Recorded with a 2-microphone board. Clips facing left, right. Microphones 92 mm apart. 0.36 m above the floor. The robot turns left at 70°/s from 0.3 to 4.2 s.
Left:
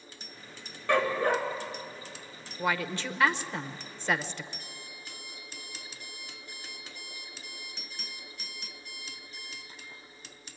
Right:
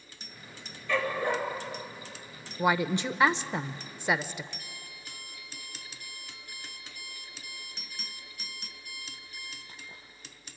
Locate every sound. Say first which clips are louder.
0.9 s a dog barking: left 3 dB; 80° left, 2 m; by 1.4 s 45° left, 2 m
2.6 s a woman speaking: right 4 dB; 10° right (ahead or behind), 0.8 m
4.6 s an alarm clock: left 1 dB; 55° right (ahead or behind), 5 m